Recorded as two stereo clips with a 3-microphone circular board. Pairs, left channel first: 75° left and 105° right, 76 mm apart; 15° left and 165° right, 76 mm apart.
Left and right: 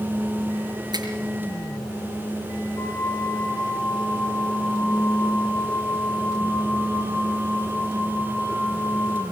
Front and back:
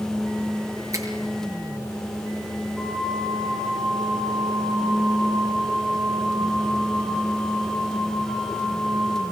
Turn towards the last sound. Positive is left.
turn(degrees=105)